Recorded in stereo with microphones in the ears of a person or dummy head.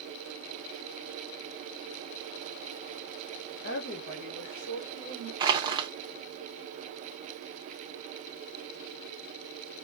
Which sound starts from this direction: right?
Crushing, at 5.4 s.